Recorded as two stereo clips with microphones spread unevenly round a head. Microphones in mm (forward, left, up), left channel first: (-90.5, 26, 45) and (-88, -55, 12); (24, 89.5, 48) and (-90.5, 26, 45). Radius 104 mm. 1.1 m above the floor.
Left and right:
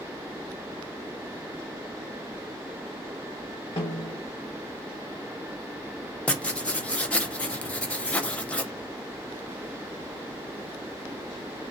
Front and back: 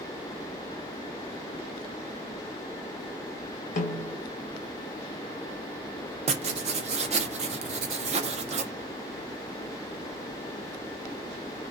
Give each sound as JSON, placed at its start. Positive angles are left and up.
{"t": 3.8, "sound": "a snare drum", "azimuth_deg": 45, "distance_m": 0.8}
{"t": 6.3, "sound": "writing", "azimuth_deg": 180, "distance_m": 0.5}